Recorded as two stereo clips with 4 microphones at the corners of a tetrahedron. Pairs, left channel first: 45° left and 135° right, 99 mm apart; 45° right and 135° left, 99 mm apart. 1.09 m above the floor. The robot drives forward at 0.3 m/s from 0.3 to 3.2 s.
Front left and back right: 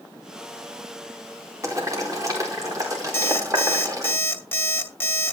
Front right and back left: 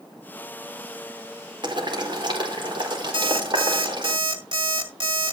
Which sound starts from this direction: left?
An alarm clock, at 3.1 s.